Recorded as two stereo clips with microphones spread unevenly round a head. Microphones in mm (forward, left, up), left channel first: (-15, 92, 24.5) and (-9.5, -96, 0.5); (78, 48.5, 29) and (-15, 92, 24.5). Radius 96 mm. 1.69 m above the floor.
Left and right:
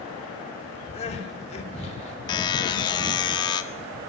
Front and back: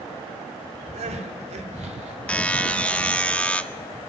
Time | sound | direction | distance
0.9 | crying | 150° left | 4 m
2.3 | a buzzer | 45° left | 1.4 m